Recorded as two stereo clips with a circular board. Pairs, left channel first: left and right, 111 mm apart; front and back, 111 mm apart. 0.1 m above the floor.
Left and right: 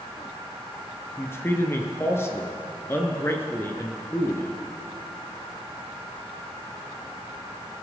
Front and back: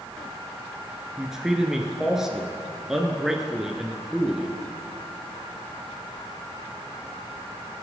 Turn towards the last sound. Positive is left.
turn(degrees=100)